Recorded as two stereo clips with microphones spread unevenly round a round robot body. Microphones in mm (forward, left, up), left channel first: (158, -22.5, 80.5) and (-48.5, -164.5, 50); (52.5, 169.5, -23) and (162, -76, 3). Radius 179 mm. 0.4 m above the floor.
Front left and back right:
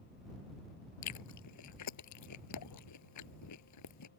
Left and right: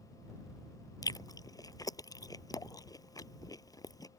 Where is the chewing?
35° left.